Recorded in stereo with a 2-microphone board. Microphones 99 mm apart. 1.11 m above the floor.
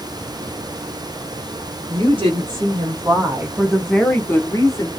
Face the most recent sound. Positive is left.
turn(degrees=40)  # may be behind; listen again after turning